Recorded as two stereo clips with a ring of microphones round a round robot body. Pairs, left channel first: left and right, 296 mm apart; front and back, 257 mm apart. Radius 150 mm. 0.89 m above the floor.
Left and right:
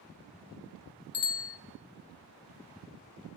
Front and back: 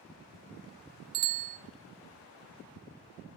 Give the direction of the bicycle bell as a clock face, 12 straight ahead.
8 o'clock.